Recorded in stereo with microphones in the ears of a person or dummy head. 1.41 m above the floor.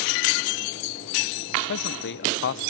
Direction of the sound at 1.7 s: 55° left (ahead or behind).